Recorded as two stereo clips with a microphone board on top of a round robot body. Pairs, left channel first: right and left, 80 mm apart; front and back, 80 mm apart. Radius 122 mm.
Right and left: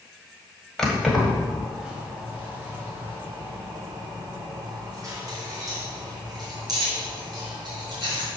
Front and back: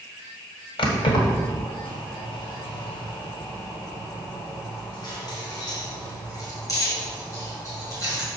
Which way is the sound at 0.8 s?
5° right.